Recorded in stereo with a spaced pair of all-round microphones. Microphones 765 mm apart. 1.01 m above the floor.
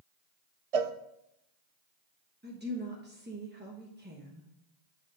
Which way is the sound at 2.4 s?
15° right (ahead or behind).